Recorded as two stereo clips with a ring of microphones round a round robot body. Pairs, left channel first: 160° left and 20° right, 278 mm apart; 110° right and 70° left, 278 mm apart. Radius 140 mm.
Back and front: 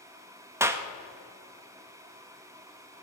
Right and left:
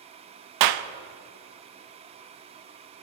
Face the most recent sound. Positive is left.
turn(degrees=60)